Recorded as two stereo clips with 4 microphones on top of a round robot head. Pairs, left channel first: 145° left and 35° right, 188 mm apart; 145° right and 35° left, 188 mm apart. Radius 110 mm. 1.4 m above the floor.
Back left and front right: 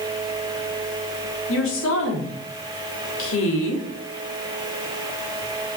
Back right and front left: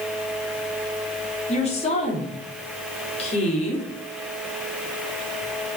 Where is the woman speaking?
155° left, 3.5 m.